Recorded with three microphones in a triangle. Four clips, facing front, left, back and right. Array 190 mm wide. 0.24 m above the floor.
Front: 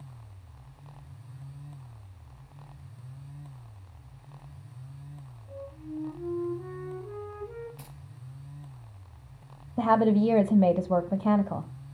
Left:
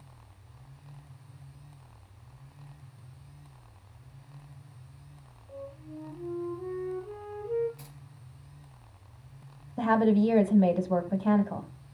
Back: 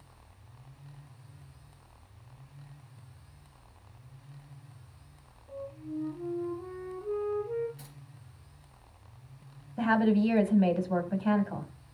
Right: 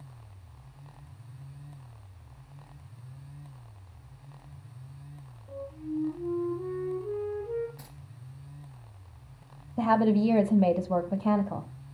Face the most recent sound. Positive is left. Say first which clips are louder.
# even, front 3 dB
turn(degrees=-15)